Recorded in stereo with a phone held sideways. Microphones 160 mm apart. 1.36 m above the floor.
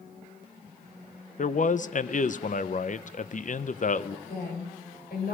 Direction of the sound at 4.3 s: 70° left (ahead or behind).